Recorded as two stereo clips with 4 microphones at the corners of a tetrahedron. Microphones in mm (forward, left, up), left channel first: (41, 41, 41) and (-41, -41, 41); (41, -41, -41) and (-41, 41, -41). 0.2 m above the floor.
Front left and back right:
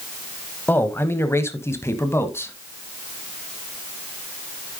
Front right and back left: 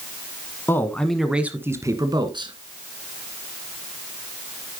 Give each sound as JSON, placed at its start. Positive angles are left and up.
{"t": 0.7, "sound": "a man speaking", "azimuth_deg": -5, "distance_m": 1.3}